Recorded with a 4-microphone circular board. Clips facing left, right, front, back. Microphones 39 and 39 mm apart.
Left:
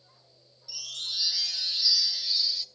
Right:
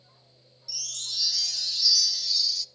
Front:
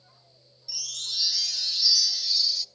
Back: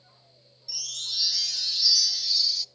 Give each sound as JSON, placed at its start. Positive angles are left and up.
{"t": 0.7, "sound": "a chime", "azimuth_deg": 85, "distance_m": 0.7}